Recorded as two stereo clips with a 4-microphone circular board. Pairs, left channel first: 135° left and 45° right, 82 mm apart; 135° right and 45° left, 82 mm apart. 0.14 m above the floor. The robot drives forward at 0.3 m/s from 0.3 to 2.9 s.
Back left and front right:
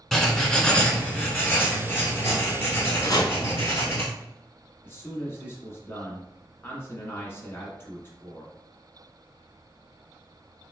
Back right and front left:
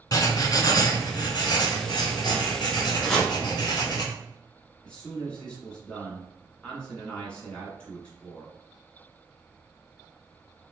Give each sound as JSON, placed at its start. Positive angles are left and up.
{"t": 0.1, "sound": "writing", "azimuth_deg": -140, "distance_m": 0.5}
{"t": 3.0, "sound": "chopping", "azimuth_deg": 140, "distance_m": 0.8}
{"t": 4.8, "sound": "a man speaking", "azimuth_deg": 160, "distance_m": 1.3}